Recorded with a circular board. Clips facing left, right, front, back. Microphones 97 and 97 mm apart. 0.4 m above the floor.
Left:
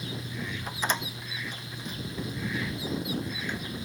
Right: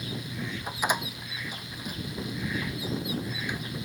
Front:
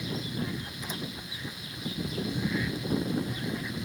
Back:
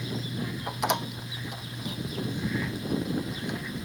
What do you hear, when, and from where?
0.7 s a door slam: 170° right